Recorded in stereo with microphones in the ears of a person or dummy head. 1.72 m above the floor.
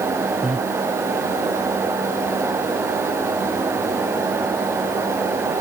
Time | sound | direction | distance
0.4 | breathing | centre (ahead or behind) | ?